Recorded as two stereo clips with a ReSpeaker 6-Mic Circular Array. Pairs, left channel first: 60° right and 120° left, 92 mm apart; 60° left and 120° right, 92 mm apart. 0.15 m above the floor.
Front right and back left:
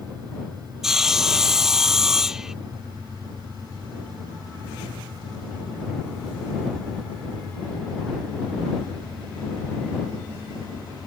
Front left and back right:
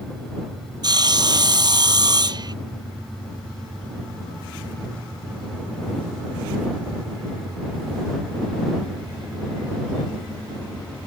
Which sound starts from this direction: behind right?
Sawing, at 0.8 s.